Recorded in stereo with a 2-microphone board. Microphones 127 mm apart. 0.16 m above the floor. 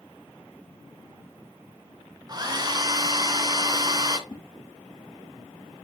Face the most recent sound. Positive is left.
turn(degrees=35)  # may be behind; listen again after turning